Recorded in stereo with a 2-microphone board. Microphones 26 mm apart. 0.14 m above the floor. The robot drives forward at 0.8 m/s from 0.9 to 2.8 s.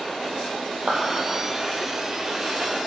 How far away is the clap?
About 3 m.